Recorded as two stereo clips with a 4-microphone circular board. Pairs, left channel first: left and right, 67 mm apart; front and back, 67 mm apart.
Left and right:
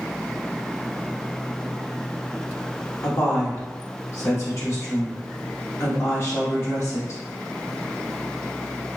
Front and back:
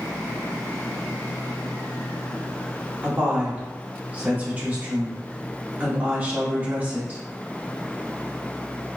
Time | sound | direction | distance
3.0 | a woman speaking | 120° left | 1.5 m